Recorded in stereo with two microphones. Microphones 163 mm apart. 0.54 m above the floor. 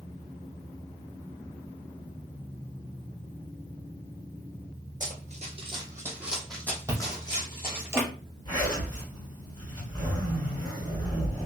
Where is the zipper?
25° left (ahead or behind), 2 m.